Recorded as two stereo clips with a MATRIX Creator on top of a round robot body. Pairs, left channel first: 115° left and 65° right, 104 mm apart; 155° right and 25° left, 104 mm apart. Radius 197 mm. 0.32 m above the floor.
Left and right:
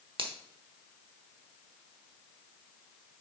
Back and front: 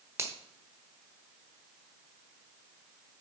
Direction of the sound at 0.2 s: 40° right.